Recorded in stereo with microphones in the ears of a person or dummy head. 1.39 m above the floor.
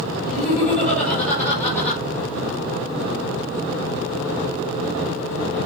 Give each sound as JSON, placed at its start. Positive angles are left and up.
{"t": 0.2, "sound": "laughter", "side_deg": 5, "distance_m": 5.5}